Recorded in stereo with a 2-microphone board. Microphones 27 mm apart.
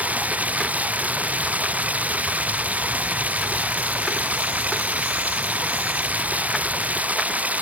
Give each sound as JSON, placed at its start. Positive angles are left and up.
{"t": 0.0, "sound": "running water", "side_deg": -80}